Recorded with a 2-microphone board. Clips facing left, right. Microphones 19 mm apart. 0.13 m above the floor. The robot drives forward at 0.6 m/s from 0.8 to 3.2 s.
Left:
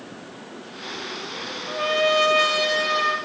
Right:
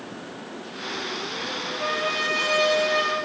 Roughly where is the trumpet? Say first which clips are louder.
Left 7 dB; left.